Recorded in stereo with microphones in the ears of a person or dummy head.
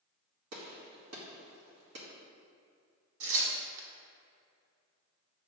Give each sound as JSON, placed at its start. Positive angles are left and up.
{"t": 0.5, "sound": "a gunshot", "side_deg": -75, "distance_m": 2.0}
{"t": 3.2, "sound": "tearing paper", "side_deg": -70, "distance_m": 1.8}